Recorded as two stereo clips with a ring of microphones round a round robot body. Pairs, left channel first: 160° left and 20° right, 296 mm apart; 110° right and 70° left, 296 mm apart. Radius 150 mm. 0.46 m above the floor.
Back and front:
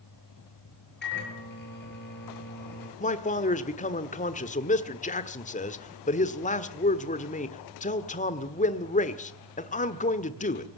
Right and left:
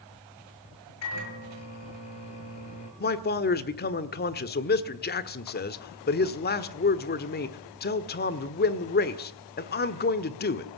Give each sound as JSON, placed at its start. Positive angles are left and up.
{"t": 1.0, "sound": "a microwave", "azimuth_deg": -150, "distance_m": 7.0}
{"t": 3.0, "sound": "a man speaking", "azimuth_deg": -150, "distance_m": 1.4}